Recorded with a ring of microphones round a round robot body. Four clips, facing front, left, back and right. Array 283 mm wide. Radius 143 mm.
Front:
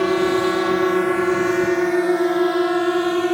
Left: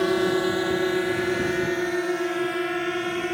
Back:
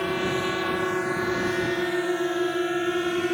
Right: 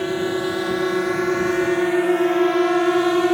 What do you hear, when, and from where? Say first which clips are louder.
0.0 s a drone: even, front 8 dB; 10° left; by 3.3 s 60° right